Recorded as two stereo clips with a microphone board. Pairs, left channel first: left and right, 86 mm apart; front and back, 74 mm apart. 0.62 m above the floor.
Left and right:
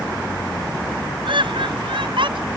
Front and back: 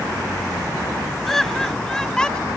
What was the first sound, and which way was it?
Laughter, 85° right.